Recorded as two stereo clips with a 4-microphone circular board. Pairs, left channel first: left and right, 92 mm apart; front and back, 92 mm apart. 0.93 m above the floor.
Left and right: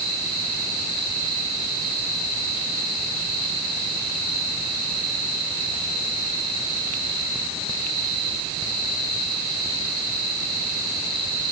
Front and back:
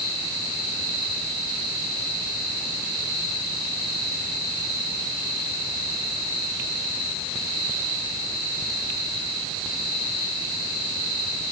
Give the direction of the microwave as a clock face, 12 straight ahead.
I don't hear a microwave.